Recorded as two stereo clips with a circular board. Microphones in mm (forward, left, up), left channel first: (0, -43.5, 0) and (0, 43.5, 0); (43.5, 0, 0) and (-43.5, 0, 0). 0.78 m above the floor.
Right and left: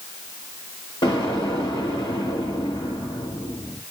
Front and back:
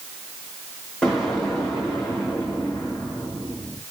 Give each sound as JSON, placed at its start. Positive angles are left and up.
{"t": 1.0, "sound": "an explosion", "azimuth_deg": -85, "distance_m": 1.9}